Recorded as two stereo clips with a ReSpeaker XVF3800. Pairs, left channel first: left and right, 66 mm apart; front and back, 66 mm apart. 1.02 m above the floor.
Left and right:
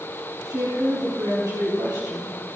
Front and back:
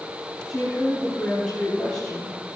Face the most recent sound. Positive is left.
turn(degrees=-70)